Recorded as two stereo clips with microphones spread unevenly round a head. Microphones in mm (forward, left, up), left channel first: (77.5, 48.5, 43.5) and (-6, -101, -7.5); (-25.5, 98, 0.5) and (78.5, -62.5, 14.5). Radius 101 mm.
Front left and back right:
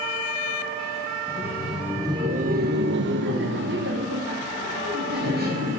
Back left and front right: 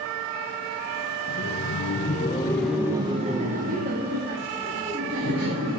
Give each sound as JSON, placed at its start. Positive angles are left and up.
{"t": 1.3, "sound": "laughter", "azimuth_deg": 140, "distance_m": 0.7}